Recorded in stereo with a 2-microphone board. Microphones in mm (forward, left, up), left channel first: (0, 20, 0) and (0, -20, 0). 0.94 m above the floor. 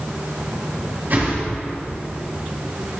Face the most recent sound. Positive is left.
turn(degrees=-55)  # may be behind; listen again after turning